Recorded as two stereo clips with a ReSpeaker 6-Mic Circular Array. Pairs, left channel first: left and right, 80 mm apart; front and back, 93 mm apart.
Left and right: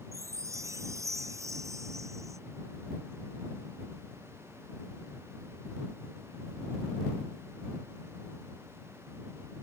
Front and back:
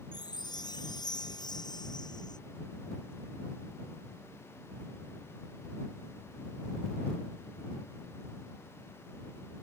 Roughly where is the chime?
Ahead right.